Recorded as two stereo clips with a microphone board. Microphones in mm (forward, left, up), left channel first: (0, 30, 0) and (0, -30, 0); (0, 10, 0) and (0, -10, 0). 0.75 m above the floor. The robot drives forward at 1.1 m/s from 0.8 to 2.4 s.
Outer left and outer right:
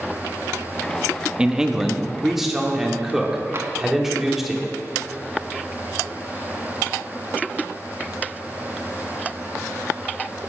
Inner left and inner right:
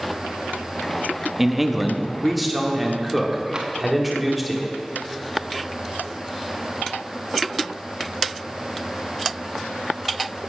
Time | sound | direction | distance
1.4 | a man speaking | 15° right (ahead or behind) | 0.6 m
3.5 | tapping | 45° right (ahead or behind) | 1.0 m